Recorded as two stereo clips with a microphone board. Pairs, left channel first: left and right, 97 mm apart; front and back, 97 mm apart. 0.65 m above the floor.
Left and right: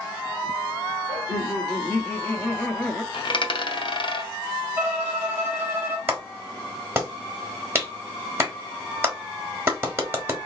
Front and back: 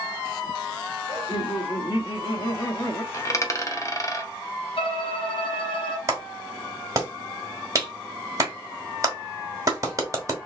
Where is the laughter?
25° left, 1.6 m; by 3.0 s 10° left, 0.7 m.